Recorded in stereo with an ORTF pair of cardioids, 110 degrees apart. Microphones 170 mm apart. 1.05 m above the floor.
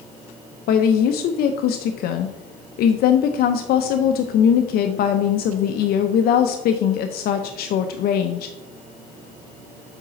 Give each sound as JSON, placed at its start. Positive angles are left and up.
{"t": 0.7, "sound": "a woman speaking", "azimuth_deg": 70, "distance_m": 0.6}